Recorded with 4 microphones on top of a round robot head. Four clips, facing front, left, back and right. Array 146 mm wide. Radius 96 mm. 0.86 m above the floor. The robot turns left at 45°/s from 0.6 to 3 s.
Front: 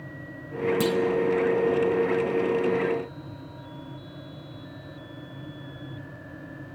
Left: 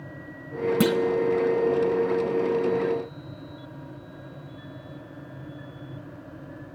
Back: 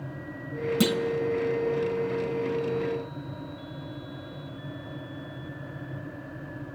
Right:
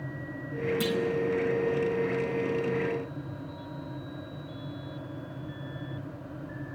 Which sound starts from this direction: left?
A clunk, at 0.8 s.